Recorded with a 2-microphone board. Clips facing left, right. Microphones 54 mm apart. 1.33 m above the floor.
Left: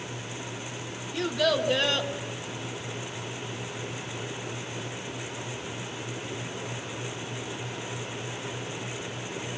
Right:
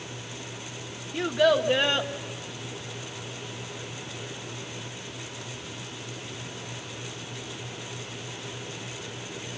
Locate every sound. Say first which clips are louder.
1.1 s a child speaking: right 4 dB; 20° right (ahead or behind), 1.4 m